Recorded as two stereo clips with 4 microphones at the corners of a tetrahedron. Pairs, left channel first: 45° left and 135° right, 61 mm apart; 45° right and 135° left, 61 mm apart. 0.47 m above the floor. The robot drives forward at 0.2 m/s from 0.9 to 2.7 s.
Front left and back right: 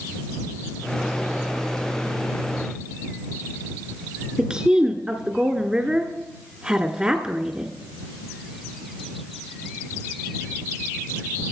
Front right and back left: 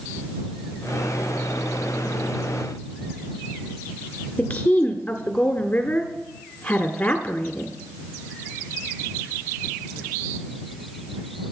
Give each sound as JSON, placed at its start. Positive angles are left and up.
{"t": 4.4, "sound": "a woman speaking", "azimuth_deg": -85, "distance_m": 1.2}